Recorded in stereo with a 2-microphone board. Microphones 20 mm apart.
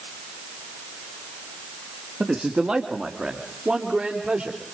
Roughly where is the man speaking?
Right.